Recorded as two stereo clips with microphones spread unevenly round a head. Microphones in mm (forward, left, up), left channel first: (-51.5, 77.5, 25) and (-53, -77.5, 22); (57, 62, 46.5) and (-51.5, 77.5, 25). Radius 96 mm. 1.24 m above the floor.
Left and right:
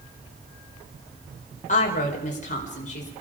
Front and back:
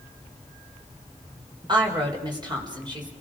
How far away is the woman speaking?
About 4.5 m.